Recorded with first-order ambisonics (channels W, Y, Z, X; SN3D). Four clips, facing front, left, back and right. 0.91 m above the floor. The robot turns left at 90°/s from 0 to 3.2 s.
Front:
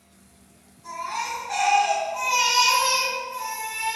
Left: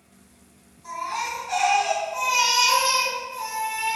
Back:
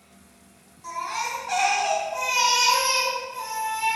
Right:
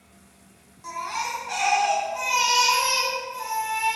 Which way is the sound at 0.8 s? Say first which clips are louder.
Left 1 dB, back 1 dB; 110° right.